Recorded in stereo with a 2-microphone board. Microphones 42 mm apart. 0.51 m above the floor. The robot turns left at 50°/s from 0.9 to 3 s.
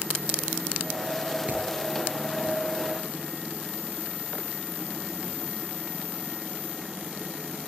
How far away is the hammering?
About 9.5 m.